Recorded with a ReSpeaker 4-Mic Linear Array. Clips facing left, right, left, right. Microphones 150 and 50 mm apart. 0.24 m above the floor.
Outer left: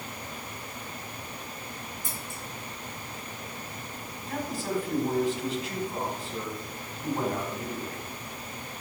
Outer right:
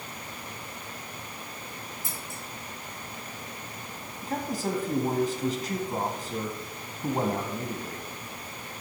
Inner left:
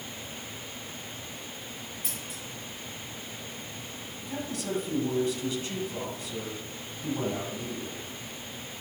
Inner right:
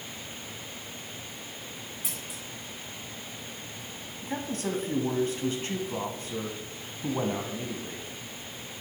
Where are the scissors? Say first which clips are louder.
Outer left 1 dB, even; 5° right (ahead or behind), 4.5 m.